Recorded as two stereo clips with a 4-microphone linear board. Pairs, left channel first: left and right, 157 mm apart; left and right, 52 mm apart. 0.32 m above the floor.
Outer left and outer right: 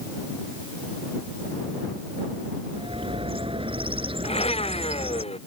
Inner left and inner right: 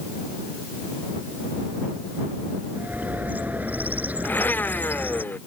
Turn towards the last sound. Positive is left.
turn(degrees=40)  # may be behind; listen again after turning